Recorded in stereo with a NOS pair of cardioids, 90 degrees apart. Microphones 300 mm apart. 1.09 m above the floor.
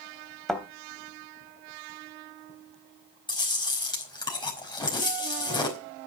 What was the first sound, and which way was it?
A thud, straight ahead.